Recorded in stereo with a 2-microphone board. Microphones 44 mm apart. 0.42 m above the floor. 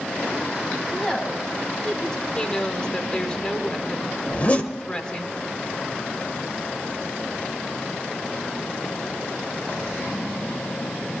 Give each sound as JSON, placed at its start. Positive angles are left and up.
{"t": 0.9, "sound": "a woman speaking", "side_deg": 20, "distance_m": 2.5}
{"t": 2.4, "sound": "a woman speaking", "side_deg": 20, "distance_m": 1.2}
{"t": 4.3, "sound": "a zipper", "side_deg": 35, "distance_m": 1.6}